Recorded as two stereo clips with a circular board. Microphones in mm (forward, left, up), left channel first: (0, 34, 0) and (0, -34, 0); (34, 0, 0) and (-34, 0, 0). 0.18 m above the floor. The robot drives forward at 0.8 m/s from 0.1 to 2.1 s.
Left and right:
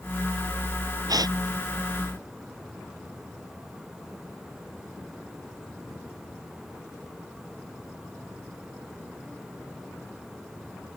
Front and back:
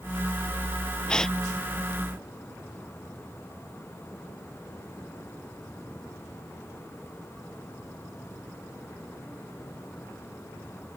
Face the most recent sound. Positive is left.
turn(degrees=-110)